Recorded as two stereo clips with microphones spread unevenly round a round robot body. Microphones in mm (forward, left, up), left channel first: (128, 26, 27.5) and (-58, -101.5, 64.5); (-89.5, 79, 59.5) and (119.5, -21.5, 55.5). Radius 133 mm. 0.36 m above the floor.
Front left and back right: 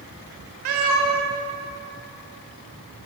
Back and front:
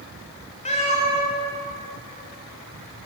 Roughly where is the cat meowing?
Behind right.